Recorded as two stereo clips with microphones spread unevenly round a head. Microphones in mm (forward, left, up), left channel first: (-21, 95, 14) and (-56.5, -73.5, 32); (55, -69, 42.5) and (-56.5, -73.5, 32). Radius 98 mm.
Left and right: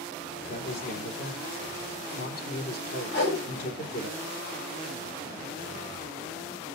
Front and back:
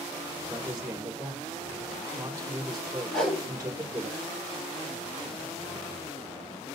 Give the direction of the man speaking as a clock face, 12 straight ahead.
8 o'clock.